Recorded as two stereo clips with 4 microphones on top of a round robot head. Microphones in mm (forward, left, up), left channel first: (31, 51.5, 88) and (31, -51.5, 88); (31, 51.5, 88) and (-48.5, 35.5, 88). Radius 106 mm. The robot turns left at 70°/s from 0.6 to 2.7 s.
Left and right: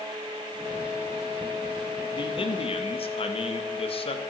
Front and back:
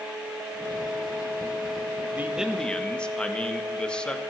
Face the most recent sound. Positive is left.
turn(degrees=90)